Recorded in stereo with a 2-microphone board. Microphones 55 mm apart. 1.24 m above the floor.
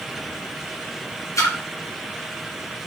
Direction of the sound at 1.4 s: 70° left (ahead or behind).